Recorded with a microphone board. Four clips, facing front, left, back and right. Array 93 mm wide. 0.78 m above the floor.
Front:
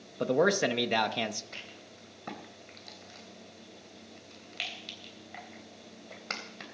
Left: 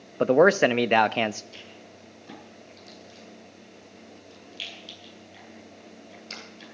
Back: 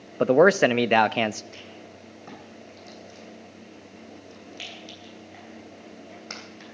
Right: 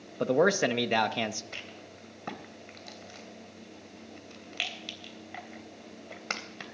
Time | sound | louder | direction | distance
0.2 | a man speaking | left 6 dB, back 9 dB | 140° left | 0.5 m
1.5 | a rattle | right 1 dB, back 6 dB | 75° right | 3 m